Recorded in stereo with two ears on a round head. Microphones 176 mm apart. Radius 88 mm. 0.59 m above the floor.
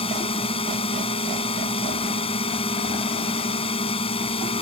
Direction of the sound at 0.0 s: 25° left (ahead or behind).